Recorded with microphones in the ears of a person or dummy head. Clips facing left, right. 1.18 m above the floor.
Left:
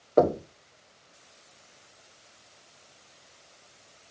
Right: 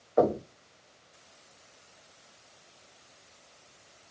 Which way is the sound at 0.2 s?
50° left (ahead or behind).